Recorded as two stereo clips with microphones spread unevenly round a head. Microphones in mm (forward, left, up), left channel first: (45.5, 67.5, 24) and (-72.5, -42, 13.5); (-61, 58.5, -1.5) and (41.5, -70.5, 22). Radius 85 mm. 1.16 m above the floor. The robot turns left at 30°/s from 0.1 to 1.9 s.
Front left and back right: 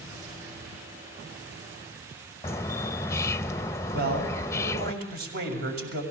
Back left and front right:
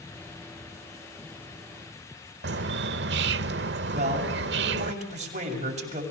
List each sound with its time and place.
2.4 s a bird: 30° right, 0.6 m
3.9 s a man speaking: 100° right, 7 m